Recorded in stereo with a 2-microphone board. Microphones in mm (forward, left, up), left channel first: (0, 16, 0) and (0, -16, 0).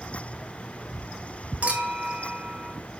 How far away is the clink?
About 1.8 m.